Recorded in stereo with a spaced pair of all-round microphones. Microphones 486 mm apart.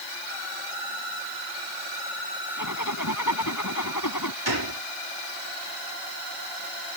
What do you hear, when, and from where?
2.6 s a zipper: 40° left (ahead or behind)
4.5 s a gunshot: 50° right (ahead or behind)